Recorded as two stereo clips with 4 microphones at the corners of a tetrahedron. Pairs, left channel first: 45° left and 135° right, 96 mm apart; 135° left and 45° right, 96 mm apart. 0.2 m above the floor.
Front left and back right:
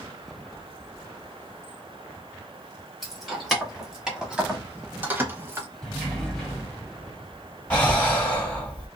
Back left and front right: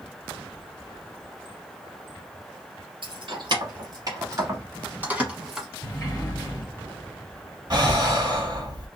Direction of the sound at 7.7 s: 25° right.